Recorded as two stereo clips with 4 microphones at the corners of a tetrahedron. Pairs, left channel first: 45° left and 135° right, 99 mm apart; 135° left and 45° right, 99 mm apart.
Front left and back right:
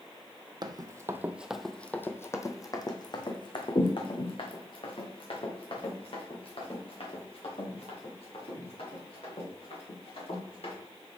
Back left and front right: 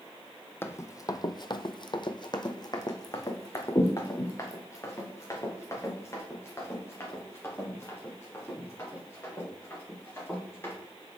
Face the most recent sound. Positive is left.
turn(degrees=70)